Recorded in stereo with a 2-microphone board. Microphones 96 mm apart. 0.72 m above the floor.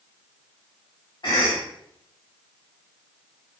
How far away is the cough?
About 1.9 m.